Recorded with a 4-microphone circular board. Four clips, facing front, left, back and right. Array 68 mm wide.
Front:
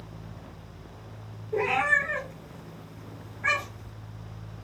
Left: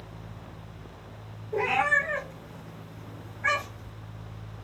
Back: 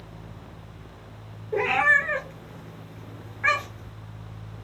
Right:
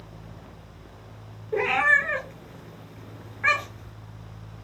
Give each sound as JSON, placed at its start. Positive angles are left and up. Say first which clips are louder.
{"t": 1.5, "sound": "a cat meowing", "louder": "right 4 dB, back 4 dB", "azimuth_deg": -135, "distance_m": 0.8}